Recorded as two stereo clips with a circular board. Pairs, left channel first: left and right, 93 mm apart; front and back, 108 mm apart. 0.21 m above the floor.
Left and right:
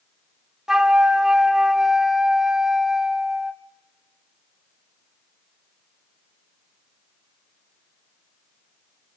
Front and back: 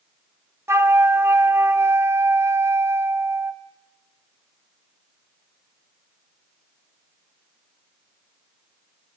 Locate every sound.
0.7 s a flute: 165° right, 0.8 m